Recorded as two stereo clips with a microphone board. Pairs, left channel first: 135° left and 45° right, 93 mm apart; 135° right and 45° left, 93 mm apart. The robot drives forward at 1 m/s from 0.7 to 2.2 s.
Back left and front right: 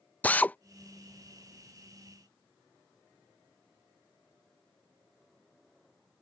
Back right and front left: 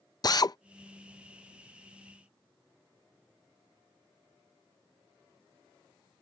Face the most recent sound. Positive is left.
turn(degrees=-175)